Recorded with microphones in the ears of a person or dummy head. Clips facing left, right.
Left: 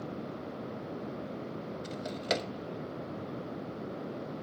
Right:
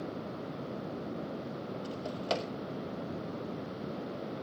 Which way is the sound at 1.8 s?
25° left (ahead or behind).